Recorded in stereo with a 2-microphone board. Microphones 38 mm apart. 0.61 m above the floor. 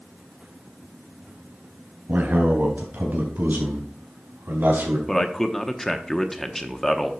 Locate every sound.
2.1 s a man speaking: 50° right (ahead or behind), 3.5 m; by 5.0 s 75° right (ahead or behind), 4 m
5.1 s a man speaking: 10° left (ahead or behind), 0.8 m